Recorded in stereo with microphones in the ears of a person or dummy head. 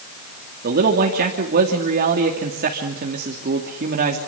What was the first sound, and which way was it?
A man speaking, 50° right (ahead or behind).